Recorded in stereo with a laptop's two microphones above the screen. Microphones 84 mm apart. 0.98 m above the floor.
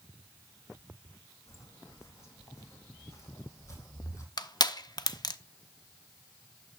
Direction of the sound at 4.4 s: 55° left (ahead or behind).